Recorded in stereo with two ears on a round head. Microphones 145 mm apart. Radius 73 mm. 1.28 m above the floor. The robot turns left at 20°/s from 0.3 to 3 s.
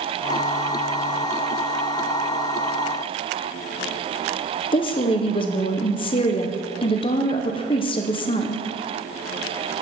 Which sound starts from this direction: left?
A woman speaking, at 4.7 s.